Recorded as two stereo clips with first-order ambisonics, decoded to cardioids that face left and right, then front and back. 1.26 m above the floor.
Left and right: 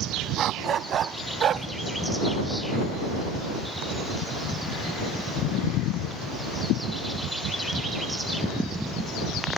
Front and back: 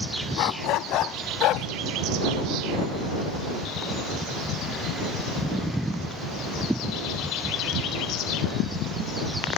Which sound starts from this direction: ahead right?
A dog barking, at 0.4 s.